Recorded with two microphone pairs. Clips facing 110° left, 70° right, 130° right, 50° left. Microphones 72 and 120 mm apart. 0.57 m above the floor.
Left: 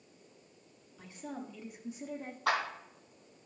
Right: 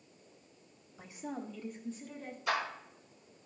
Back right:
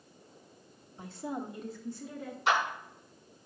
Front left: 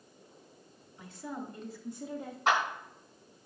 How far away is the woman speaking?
About 1.0 m.